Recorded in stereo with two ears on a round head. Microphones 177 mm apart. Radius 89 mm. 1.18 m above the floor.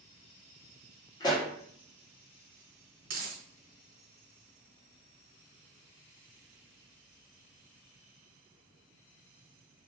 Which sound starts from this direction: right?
A dropped coin, at 3.0 s.